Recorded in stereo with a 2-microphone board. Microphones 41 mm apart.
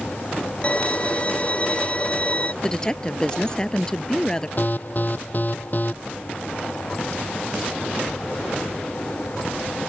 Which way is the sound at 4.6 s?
45° left (ahead or behind).